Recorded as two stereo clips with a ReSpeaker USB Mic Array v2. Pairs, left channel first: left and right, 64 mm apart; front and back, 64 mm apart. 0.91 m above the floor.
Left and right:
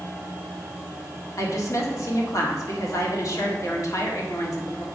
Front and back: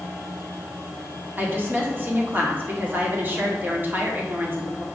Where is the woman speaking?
120° left, 1.6 m.